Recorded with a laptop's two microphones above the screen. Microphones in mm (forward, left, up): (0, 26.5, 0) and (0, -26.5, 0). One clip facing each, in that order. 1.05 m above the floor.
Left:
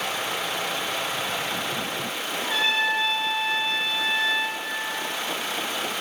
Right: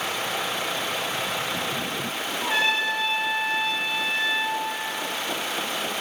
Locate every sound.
2.4 s a trumpet: 65° right (ahead or behind), 2.5 m